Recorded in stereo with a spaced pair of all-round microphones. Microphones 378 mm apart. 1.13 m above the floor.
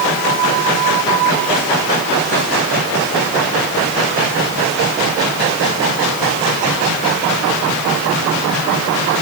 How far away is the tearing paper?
No tearing paper in this recording.